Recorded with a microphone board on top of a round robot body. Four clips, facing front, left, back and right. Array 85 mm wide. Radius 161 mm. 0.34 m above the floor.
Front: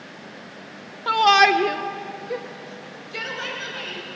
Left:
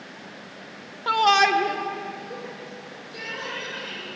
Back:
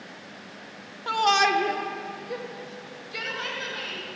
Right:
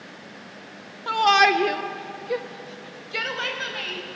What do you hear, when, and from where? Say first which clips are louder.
1.1 s a shout: right 1 dB, front 6 dB; 35° left, 1.4 m; by 4.0 s 80° right, 4.5 m